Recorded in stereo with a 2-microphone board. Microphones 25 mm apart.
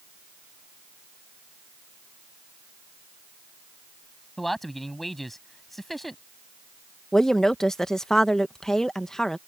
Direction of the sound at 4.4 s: 5° left (ahead or behind).